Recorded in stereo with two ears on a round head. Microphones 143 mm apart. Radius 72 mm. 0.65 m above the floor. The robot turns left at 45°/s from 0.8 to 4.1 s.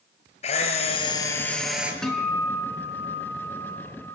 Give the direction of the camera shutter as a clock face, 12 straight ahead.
11 o'clock.